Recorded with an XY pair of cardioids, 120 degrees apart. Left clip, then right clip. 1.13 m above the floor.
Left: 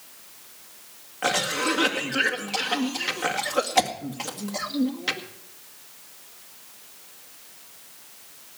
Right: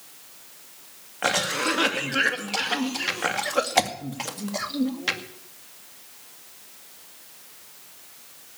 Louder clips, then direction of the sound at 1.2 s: Even; 15° right.